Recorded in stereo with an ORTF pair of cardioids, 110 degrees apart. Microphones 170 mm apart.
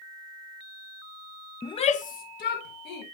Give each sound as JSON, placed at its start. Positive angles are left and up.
{"t": 1.6, "sound": "a shout", "azimuth_deg": 20, "distance_m": 0.8}